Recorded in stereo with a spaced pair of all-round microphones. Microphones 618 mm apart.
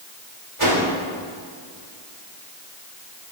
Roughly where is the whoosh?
Right.